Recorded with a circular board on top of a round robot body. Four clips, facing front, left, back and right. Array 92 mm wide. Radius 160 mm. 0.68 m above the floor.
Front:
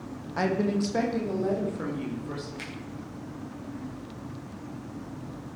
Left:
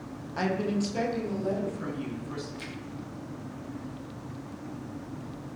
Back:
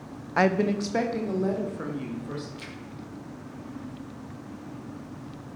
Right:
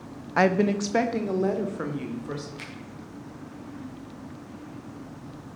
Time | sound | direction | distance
0.4 | a woman speaking | 130° right | 1.1 m
2.6 | a finger snap | 45° right | 5.5 m